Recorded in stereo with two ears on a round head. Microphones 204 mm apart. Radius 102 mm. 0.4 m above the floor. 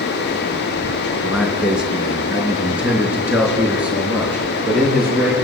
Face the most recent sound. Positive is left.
turn(degrees=-5)  # may be behind; listen again after turning